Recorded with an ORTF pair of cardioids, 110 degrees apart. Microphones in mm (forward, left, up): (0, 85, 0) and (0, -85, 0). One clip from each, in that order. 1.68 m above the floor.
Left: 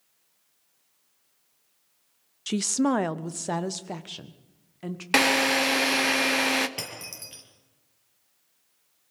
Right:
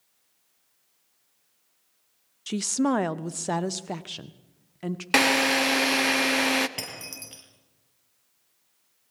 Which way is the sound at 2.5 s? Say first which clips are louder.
Left 1 dB; 15° left.